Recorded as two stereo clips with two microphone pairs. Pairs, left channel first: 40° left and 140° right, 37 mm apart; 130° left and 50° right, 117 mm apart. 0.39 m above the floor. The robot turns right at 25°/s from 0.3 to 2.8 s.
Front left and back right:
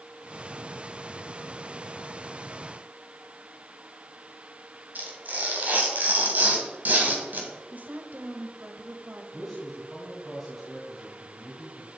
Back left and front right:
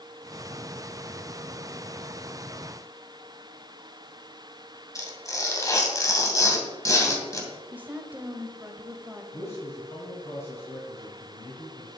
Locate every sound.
5.0 s tearing paper: 170° right, 2.5 m
7.7 s a woman speaking: 120° right, 1.6 m
9.3 s a man speaking: 130° left, 2.5 m